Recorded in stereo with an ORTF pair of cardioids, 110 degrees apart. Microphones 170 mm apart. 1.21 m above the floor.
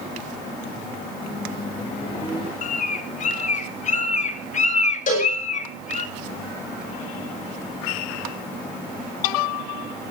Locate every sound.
1.2 s a microwave: 30° left, 8.5 m
2.6 s a bird: 45° left, 1.5 m
5.1 s a cowbell: 50° left, 8 m